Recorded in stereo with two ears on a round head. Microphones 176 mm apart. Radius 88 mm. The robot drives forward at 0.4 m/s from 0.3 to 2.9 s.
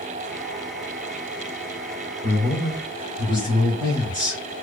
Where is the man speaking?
30° right (ahead or behind), 1.6 m; by 4.4 s 25° right (ahead or behind), 1.8 m.